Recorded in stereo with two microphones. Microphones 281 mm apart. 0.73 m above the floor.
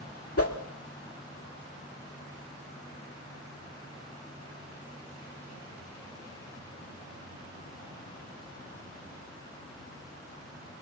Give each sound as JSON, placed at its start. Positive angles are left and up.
{"t": 0.4, "sound": "a whoosh", "side_deg": 55, "distance_m": 1.7}